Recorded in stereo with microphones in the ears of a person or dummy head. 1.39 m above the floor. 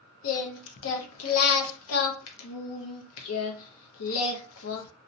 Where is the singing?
80° left, 0.6 m.